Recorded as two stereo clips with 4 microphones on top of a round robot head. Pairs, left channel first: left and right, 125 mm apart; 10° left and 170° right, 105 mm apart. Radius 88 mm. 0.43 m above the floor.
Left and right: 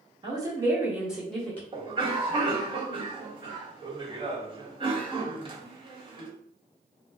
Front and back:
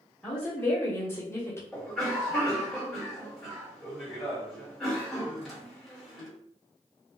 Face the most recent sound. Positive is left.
turn(degrees=-80)